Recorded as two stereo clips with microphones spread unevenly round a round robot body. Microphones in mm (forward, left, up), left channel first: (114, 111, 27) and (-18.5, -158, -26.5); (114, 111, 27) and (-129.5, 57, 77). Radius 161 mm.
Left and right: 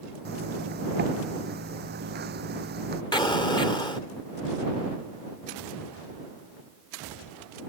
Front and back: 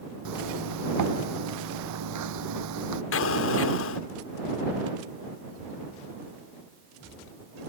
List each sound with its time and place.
0.2 s a zipper: straight behind
3.1 s an explosion: 15° right